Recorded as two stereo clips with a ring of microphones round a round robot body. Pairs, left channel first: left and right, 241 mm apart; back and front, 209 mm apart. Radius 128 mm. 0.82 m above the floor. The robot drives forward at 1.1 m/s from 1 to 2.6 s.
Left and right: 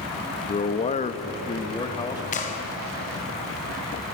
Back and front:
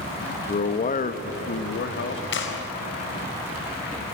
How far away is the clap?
About 3.5 m.